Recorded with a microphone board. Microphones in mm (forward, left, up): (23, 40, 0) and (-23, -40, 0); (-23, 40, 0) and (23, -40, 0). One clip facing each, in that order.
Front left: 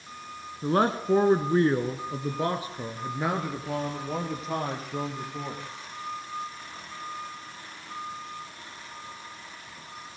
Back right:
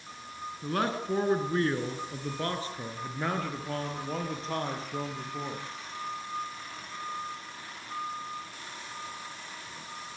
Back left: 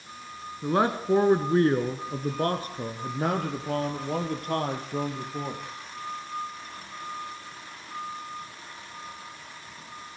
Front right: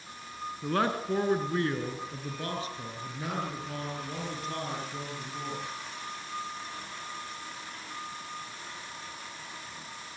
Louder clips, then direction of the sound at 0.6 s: Front left 6 dB, back left 5 dB; 60° left.